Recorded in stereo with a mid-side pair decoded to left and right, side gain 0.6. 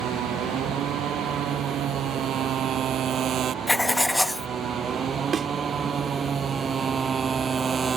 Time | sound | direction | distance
0.0 | a motorcycle | 55° right | ?
3.7 | writing | 10° left | ?
5.3 | a thud | 35° right | ?